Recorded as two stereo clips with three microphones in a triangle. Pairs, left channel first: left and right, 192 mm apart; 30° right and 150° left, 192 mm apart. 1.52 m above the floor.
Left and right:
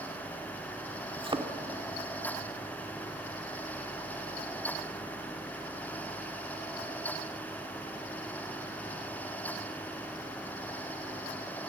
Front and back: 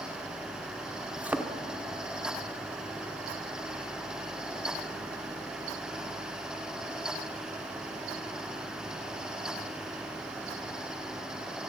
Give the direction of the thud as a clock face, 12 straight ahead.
4 o'clock.